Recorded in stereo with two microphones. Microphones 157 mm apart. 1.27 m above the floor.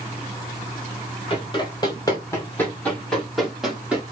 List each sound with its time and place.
1.3 s running footsteps: 30° left (ahead or behind), 1.7 m; by 4.0 s 10° right (ahead or behind), 1.9 m